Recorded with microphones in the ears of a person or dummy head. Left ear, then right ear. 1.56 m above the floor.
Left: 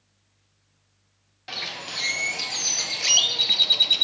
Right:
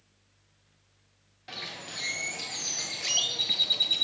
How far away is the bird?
About 1.0 m.